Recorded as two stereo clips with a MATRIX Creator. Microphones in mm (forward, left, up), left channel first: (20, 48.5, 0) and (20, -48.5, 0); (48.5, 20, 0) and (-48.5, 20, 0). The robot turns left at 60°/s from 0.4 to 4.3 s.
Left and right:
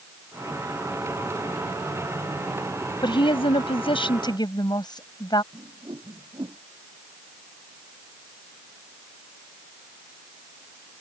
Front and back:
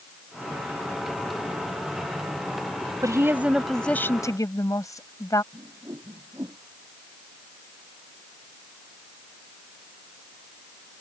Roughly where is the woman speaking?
Behind left.